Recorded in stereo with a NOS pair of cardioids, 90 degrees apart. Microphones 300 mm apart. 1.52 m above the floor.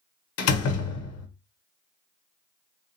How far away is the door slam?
About 0.8 m.